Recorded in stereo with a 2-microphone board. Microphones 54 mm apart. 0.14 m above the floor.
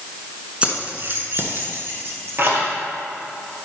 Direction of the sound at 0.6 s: 25° right (ahead or behind).